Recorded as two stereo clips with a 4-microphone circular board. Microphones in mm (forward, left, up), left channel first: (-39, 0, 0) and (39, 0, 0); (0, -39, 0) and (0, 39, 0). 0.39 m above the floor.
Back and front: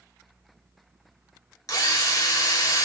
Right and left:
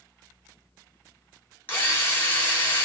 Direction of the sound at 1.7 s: 150° right.